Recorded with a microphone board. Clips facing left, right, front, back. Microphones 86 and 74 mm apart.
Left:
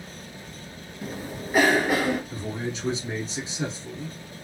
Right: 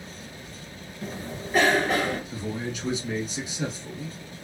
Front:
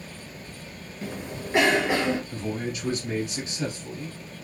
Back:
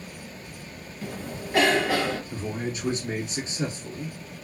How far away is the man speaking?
About 1.5 m.